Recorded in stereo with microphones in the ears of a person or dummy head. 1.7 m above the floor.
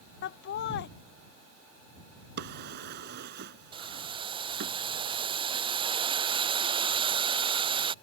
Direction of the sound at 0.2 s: 60° left (ahead or behind).